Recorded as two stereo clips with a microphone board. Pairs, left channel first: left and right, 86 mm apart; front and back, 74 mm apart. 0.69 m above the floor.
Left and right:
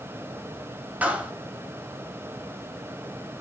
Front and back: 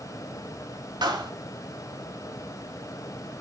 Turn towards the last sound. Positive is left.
turn(degrees=-160)